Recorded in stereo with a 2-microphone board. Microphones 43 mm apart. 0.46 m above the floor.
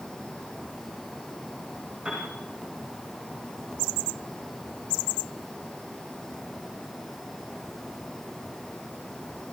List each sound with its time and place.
2.0 s a piano: 30° right (ahead or behind), 9 m